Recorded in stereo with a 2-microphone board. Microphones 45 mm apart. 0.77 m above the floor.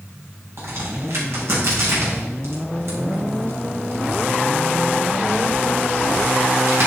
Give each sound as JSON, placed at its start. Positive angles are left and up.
{"t": 0.6, "sound": "a crack", "side_deg": -70, "distance_m": 4.5}